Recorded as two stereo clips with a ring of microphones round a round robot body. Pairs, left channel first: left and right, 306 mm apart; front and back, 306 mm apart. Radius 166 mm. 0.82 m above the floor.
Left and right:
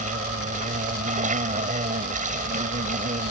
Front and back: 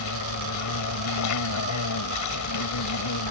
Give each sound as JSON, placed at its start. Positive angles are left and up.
{"t": 0.0, "sound": "an insect", "azimuth_deg": -25}